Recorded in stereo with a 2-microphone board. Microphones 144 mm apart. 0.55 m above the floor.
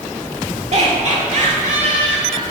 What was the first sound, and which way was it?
Laughter, 50° right (ahead or behind).